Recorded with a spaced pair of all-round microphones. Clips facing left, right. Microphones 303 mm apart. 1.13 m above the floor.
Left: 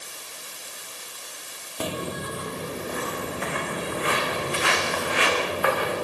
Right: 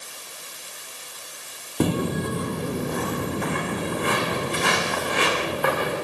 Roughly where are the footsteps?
Right.